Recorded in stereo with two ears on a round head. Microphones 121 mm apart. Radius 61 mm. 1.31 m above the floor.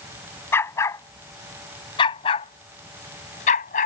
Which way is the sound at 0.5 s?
15° left (ahead or behind).